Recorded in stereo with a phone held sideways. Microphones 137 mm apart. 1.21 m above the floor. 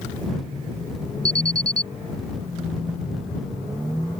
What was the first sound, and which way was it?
An alarm, 80° right.